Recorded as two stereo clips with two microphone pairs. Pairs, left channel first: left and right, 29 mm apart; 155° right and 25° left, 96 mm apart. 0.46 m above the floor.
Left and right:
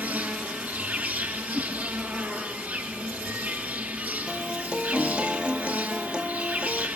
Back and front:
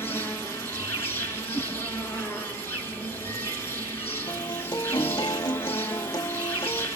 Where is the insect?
90° right, 3.5 m.